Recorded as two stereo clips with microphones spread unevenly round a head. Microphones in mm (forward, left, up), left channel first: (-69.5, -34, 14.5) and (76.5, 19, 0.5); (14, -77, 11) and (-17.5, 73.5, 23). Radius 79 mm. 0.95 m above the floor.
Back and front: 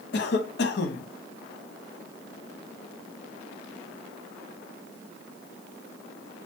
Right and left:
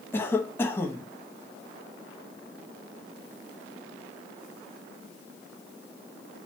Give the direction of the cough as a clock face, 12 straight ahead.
5 o'clock.